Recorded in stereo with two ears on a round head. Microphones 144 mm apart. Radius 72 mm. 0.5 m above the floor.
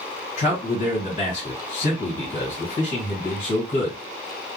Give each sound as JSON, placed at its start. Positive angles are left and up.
{"t": 0.4, "sound": "a man speaking", "side_deg": 45, "distance_m": 1.4}